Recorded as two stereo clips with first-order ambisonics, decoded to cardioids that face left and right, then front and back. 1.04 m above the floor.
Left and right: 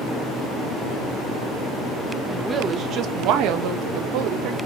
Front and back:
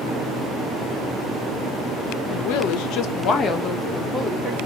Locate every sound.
2.3 s a woman speaking: 5° right, 0.8 m; by 4.6 s 100° right, 1.3 m